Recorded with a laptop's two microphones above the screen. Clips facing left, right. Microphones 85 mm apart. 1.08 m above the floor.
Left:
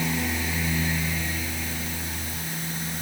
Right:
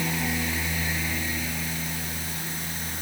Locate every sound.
Only background noise.